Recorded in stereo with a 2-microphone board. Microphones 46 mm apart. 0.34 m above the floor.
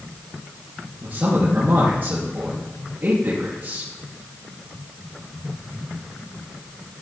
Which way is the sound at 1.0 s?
45° right (ahead or behind).